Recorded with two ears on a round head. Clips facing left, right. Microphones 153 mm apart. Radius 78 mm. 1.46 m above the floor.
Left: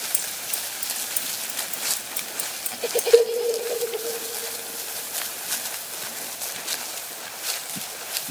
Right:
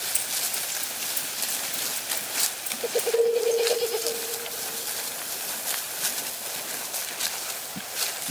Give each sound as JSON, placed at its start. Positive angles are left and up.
{"t": 0.1, "sound": "scissors", "side_deg": 60, "distance_m": 1.7}
{"t": 3.1, "sound": "a cowbell", "side_deg": 65, "distance_m": 0.9}